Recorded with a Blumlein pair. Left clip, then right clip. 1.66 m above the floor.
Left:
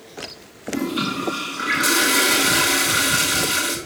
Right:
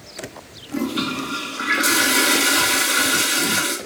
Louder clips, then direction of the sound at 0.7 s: Even; straight ahead.